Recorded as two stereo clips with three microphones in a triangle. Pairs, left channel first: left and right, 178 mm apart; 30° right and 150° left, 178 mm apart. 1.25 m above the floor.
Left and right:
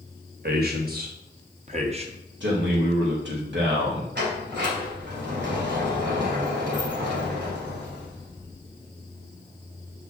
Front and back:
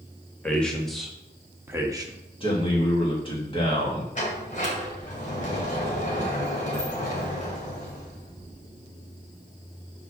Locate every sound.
0.4 s a man speaking: 115° right, 1.7 m; by 2.2 s 145° right, 1.1 m
2.4 s a man speaking: 90° right, 2.5 m
4.2 s a sliding door: 75° right, 2.5 m